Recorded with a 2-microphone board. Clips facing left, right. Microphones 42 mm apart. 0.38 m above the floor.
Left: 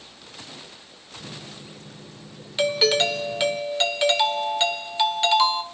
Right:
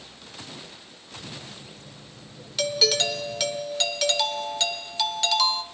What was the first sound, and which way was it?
A microwave, 75° left (ahead or behind).